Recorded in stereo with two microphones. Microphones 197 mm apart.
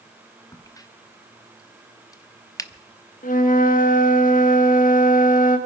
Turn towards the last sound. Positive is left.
turn(degrees=45)  # may be behind; listen again after turning